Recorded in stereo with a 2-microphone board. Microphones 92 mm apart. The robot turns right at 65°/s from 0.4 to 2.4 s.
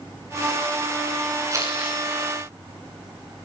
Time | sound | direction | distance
1.5 | crumpling | 40° right (ahead or behind) | 10 m